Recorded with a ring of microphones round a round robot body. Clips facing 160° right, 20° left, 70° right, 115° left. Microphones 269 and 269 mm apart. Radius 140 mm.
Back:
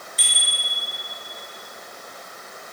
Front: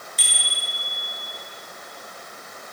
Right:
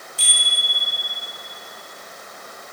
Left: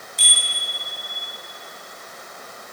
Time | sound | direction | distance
0.2 | a bicycle bell | 40° left | 10 m